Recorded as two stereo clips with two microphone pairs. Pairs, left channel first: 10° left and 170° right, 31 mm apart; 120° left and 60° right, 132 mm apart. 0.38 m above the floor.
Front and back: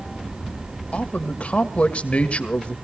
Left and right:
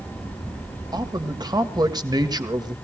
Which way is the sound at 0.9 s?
15° right.